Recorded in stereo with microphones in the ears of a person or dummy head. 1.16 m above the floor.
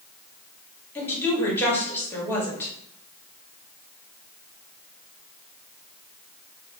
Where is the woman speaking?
15° left (ahead or behind), 1.8 m.